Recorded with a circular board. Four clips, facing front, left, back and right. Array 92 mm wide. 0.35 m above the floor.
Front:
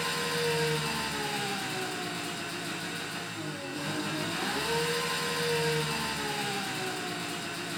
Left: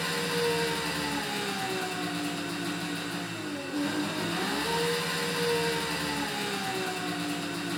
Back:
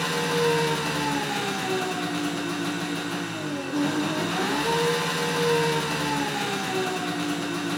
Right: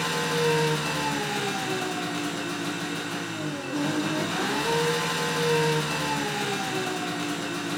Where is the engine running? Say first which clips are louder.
Right 4 dB, back 7 dB; 150° right, 3.5 m.